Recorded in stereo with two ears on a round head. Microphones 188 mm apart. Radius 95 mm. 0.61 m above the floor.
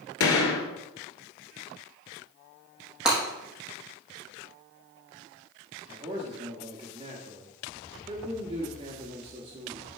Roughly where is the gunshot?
Left.